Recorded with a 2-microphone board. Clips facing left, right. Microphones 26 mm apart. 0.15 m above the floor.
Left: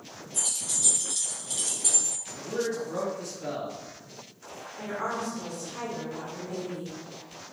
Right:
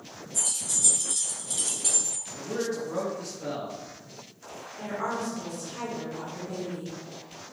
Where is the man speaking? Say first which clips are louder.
Even; 10° right (ahead or behind), 1.7 m.